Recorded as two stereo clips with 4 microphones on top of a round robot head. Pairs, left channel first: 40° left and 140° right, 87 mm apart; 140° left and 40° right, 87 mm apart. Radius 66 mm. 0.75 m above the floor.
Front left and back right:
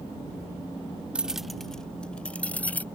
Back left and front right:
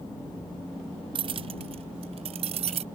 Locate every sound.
1.1 s keys jangling: 65° right; by 2.8 s 35° right